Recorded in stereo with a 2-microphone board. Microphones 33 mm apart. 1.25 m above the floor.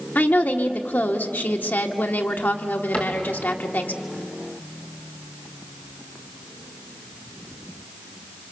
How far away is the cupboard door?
About 4.5 m.